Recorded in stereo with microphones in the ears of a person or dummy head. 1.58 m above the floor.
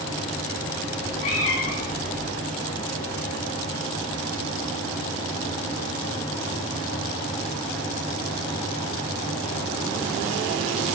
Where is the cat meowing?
45° left (ahead or behind), 1.6 m; by 2.3 s 25° left (ahead or behind), 1.2 m.